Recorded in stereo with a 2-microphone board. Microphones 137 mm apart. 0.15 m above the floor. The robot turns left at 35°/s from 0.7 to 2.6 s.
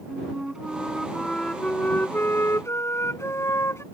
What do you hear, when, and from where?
0.1 s a flute: 5° right (ahead or behind); by 3.8 s 20° left (ahead or behind)